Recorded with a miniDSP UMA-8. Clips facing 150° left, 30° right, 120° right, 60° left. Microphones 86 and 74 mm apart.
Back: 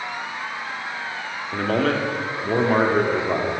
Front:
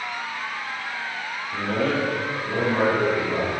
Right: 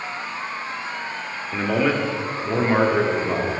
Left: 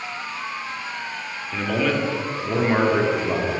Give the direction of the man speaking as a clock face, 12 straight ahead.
6 o'clock.